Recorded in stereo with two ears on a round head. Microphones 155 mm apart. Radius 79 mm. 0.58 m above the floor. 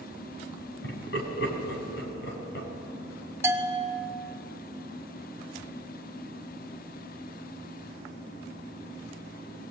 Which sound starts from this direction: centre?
A bell, at 3.4 s.